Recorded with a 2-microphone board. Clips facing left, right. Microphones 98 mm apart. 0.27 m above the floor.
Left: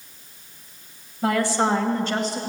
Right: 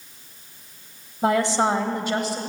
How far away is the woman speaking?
About 1.2 m.